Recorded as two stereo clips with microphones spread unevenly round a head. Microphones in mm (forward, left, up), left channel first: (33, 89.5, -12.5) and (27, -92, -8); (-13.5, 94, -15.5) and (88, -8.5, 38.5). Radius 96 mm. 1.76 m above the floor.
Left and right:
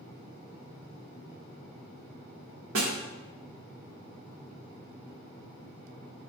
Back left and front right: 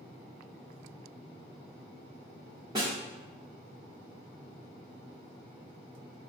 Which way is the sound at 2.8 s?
110° right.